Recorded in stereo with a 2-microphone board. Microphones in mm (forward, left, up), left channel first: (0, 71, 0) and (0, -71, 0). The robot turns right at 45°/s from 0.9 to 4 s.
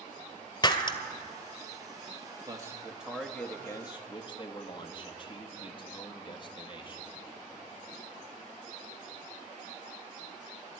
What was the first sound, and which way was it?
Breaking glass, 35° left (ahead or behind).